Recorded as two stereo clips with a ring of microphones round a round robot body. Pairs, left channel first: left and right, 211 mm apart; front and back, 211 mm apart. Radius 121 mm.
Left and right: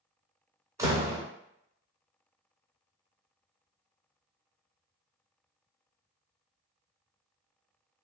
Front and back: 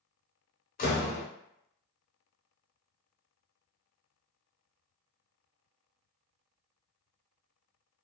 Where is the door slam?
20° right, 0.8 m.